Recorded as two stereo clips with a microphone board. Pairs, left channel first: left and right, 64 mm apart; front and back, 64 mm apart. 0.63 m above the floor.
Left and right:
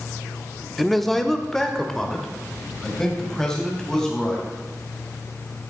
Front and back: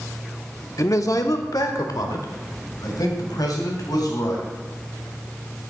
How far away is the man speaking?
About 0.9 m.